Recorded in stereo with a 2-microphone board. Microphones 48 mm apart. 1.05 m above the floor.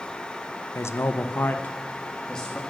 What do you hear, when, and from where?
0.8 s a man speaking: 70° left (ahead or behind), 0.7 m; by 2.6 s 10° left (ahead or behind), 1.6 m